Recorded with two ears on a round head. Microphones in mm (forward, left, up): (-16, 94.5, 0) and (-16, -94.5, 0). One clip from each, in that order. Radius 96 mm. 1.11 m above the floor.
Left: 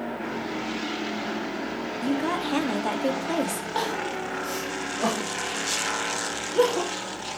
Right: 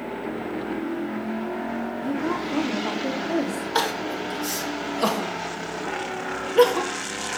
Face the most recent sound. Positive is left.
turn(degrees=-45)  # may be behind; listen again after turning